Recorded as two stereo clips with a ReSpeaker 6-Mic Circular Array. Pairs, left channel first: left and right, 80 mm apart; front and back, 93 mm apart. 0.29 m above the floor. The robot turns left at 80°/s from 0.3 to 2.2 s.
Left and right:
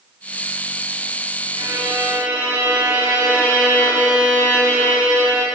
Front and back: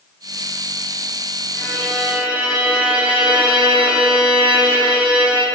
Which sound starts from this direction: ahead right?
A violin, at 1.6 s.